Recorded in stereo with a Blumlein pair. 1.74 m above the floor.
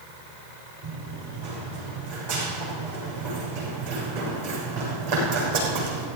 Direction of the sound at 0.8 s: 55° right.